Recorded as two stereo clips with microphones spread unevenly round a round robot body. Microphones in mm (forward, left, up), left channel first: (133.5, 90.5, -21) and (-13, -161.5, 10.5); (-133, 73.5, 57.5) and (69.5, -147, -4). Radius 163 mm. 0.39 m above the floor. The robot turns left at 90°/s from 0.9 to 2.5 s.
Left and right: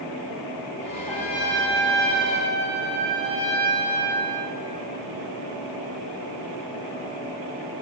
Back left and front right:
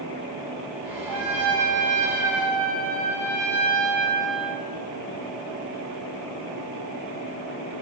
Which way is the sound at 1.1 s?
25° right.